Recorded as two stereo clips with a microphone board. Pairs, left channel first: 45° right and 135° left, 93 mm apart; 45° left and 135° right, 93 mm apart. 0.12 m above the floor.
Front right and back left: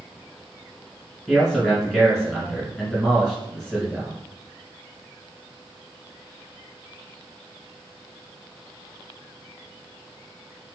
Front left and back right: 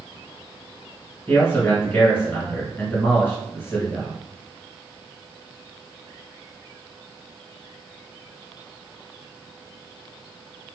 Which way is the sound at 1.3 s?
35° left.